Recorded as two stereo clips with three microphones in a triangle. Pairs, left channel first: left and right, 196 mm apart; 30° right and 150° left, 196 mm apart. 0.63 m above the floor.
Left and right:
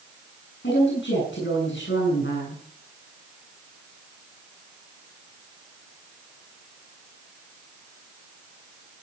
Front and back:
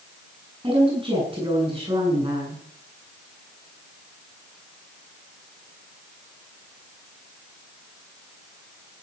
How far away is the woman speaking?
About 7.5 m.